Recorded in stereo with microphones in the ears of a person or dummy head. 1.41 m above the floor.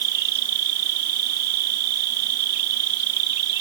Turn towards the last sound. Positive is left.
turn(degrees=-55)  # may be behind; listen again after turning